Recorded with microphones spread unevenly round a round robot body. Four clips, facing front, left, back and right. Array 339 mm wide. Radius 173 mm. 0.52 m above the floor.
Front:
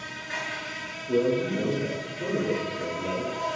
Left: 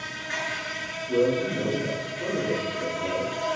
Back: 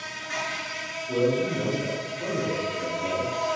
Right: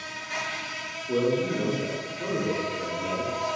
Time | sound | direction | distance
0.0 | an insect | 75° left | 0.8 m
1.1 | a man speaking | 35° right | 0.9 m